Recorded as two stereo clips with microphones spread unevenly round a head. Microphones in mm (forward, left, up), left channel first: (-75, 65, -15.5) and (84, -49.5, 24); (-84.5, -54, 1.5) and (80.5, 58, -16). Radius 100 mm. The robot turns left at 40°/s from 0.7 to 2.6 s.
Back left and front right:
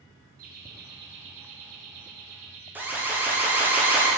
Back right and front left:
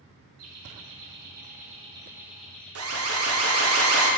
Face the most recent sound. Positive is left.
turn(degrees=50)